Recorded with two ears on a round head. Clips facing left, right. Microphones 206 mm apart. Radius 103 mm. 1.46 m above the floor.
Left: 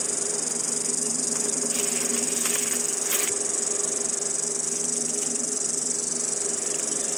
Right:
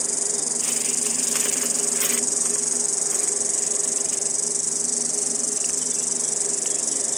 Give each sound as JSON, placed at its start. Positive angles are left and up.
{"t": 0.0, "sound": "an insect", "side_deg": -15}